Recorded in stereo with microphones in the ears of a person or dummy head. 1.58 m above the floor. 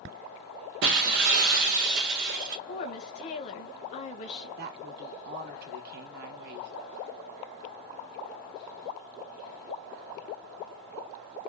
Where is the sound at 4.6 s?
50° right (ahead or behind), 1.1 m.